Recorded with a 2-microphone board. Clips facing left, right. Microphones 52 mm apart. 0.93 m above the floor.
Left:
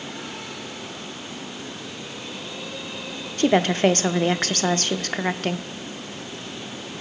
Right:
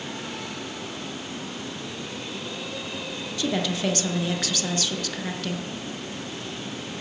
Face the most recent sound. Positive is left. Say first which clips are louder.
# left 8 dB
turn(degrees=50)  # may be behind; listen again after turning